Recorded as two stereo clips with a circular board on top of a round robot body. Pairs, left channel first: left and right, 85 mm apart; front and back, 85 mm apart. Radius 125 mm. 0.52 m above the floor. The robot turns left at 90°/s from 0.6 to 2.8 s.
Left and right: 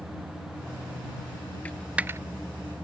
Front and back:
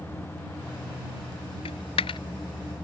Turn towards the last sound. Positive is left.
turn(degrees=-85)